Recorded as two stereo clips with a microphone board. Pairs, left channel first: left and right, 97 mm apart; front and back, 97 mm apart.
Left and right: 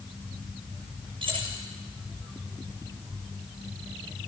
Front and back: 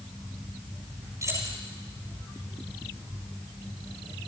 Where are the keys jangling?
120° right, 7 m.